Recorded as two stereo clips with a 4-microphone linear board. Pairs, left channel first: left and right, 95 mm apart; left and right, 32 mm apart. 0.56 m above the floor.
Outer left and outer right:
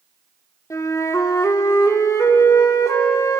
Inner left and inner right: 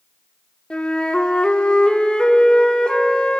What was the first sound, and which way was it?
A flute, 35° left (ahead or behind).